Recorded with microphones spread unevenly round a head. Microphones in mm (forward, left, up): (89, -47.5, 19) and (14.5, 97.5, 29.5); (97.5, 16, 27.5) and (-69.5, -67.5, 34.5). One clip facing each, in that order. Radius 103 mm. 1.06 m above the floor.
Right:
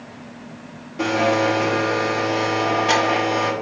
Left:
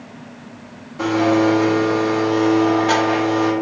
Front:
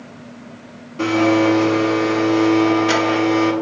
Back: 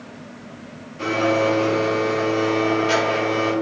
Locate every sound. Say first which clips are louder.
1.0 s a blender: left 4 dB, front 5 dB; 5° left, 0.8 m